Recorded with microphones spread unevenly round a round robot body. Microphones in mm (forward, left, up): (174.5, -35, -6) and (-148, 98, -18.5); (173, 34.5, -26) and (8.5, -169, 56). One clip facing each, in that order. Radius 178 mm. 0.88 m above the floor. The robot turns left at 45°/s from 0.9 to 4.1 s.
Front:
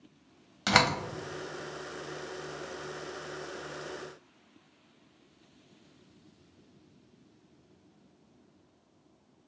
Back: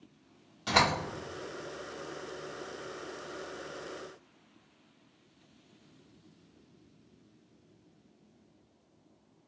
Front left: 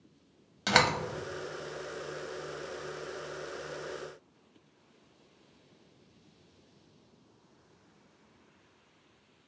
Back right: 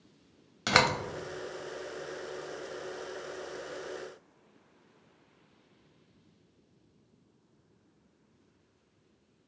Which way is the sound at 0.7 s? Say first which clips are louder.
Front 2 dB, even; 50° right.